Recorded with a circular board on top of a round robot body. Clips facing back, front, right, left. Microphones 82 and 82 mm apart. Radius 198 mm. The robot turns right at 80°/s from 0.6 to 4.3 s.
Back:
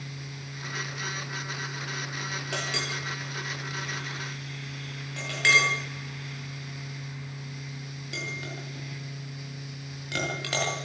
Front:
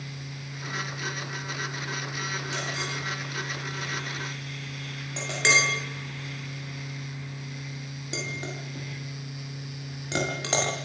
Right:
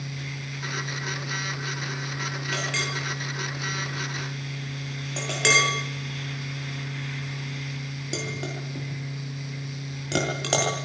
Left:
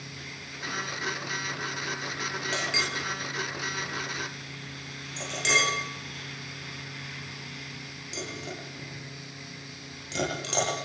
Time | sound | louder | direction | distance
2.5 | a clink | even, right 1 dB | 150° left | 9.5 m